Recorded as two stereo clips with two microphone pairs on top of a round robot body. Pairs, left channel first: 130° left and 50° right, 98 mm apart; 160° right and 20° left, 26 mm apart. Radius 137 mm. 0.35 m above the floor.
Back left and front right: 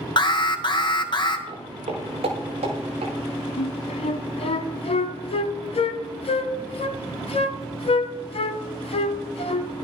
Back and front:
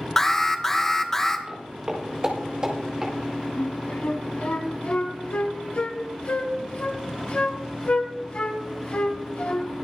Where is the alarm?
120° left, 1.3 m.